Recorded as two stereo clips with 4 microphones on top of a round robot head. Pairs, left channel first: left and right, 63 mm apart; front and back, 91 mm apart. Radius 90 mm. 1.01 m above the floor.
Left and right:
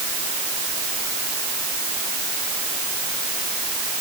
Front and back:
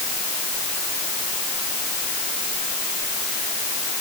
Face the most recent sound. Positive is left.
No sound to turn to.